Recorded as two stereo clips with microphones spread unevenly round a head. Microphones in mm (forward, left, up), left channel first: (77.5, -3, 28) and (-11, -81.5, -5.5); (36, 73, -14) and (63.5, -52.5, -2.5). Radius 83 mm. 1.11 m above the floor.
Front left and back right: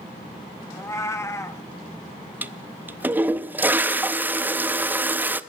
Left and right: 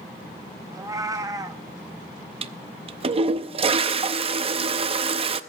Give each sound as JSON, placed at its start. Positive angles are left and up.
{"t": 0.7, "sound": "a cat meowing", "azimuth_deg": -15, "distance_m": 0.8}
{"t": 2.4, "sound": "a toilet flushing", "azimuth_deg": -50, "distance_m": 0.6}